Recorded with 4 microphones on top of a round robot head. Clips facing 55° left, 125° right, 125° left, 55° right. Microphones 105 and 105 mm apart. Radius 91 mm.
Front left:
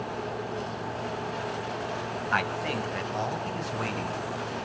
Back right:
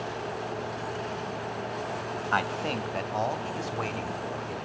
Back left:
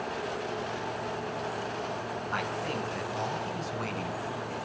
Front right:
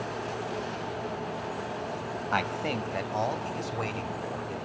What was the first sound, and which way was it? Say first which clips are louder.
A man speaking: back right 1 dB, front right 4 dB; 60° right.